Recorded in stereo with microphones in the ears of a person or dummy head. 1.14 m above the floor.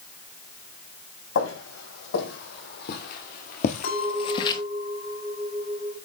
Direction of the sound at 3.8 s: 60° left (ahead or behind).